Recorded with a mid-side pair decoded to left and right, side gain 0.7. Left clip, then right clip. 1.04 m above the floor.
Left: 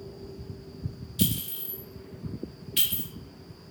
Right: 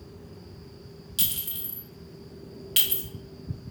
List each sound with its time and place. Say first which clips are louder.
1.2 s a clink: even; 70° right, 1.8 m